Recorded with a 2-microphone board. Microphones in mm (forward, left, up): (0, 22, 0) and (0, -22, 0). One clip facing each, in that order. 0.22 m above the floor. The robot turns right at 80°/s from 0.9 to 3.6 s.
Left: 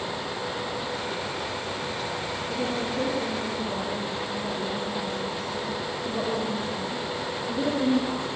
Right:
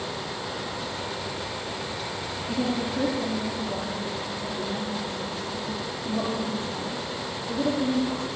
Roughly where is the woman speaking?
Ahead right.